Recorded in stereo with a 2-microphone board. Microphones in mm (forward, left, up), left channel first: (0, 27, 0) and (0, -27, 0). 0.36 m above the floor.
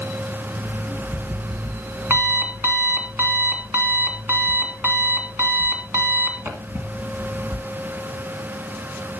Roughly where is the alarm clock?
Right.